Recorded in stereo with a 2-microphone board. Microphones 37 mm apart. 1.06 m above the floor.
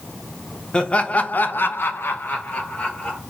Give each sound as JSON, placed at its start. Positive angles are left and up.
{"t": 0.7, "sound": "laughter", "side_deg": 30, "distance_m": 0.7}